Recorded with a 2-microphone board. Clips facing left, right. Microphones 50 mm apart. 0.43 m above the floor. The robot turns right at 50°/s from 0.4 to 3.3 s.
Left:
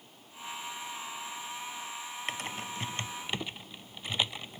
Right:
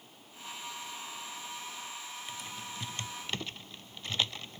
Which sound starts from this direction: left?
Typing on a keyboard, at 2.3 s.